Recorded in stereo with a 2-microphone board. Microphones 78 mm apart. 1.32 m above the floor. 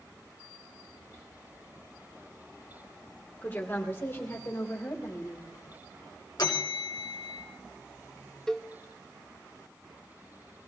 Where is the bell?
60° left (ahead or behind), 3 m.